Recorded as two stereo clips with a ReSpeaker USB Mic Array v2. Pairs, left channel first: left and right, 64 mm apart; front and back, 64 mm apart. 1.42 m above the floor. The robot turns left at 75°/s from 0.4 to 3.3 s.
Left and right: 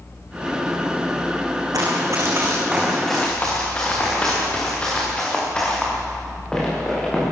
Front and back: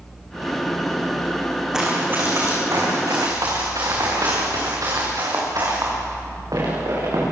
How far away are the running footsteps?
About 5.5 m.